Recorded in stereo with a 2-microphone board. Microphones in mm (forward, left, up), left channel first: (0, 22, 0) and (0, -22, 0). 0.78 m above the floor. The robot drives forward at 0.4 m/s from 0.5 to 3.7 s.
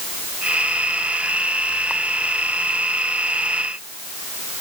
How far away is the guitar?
I don't hear a guitar.